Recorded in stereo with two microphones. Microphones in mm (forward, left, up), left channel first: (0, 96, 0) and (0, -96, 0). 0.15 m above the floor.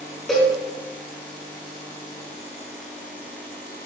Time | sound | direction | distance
0.3 | a cowbell | 5° left (ahead or behind) | 3 m